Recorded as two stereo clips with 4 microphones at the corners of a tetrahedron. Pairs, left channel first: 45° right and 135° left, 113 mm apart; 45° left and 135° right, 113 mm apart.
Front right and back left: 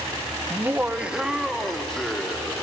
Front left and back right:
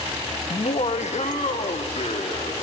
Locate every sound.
0.5 s laughter: 70° left, 1.0 m; by 2.6 s 35° left, 2.5 m